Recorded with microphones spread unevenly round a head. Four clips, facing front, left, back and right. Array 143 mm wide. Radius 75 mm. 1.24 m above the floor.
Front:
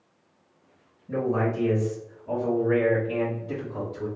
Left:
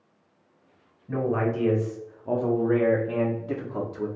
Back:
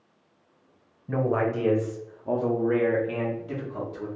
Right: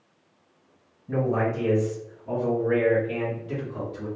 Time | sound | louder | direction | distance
1.1 | a man speaking | right 1 dB, back 1 dB | 165° right | 1.2 m